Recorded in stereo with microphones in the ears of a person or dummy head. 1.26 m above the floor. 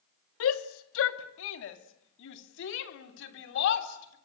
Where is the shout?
80° left, 1.6 m; by 4.2 s 60° left (ahead or behind), 3.5 m.